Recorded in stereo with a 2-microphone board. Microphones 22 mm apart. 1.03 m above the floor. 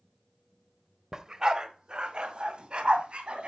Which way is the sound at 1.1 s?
20° right (ahead or behind).